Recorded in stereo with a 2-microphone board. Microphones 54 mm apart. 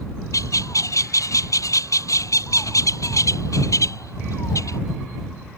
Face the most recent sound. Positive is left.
turn(degrees=85)